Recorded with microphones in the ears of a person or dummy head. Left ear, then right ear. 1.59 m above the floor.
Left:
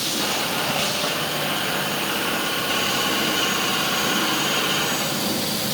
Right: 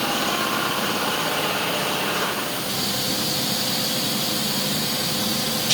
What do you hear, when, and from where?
Only background noise.